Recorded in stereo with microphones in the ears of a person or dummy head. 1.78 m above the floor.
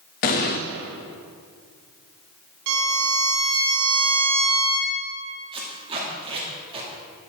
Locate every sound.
0.2 s an explosion: 35° left (ahead or behind), 0.5 m
2.7 s a violin: 70° right (ahead or behind), 1.1 m
5.5 s tape being pulled: 30° right (ahead or behind), 2.5 m